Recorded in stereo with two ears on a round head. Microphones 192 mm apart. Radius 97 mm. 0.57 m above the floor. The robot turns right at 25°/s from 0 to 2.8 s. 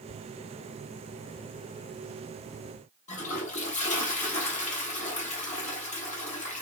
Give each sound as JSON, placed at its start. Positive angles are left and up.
{"t": 3.1, "sound": "a toilet flushing", "side_deg": 35, "distance_m": 0.9}